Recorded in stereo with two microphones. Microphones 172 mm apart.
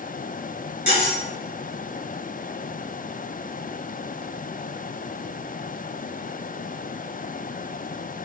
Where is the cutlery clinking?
75° left (ahead or behind), 1.8 m.